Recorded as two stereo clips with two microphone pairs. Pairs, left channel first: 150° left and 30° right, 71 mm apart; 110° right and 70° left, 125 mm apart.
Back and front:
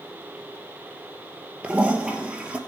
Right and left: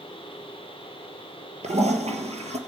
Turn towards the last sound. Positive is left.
turn(degrees=45)